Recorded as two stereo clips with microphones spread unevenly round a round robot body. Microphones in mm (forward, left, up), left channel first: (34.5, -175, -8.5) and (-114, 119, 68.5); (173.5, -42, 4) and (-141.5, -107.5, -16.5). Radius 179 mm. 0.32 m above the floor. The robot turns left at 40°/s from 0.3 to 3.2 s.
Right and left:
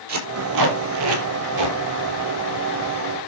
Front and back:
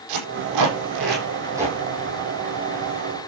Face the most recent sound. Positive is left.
turn(degrees=45)